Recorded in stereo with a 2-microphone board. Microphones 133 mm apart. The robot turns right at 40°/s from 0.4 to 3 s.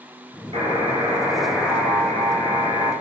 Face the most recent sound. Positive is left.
turn(degrees=55)